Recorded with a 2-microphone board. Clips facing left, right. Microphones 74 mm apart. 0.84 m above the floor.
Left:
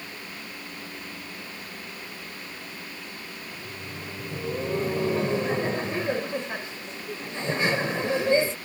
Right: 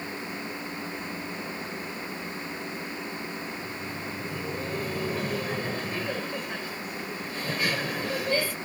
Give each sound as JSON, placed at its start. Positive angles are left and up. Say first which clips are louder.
{"t": 3.5, "sound": "laughter", "louder": "right 3 dB", "side_deg": 25}